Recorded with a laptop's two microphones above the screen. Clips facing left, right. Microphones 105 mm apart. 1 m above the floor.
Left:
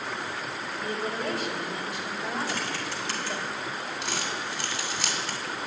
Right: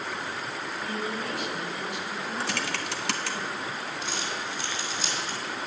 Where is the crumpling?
70° left (ahead or behind), 2.5 m.